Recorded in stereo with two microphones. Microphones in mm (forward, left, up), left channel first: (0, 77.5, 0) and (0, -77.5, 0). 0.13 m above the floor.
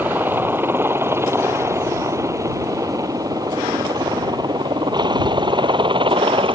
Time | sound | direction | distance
0.0 | a helicopter | 10° right (ahead or behind) | ?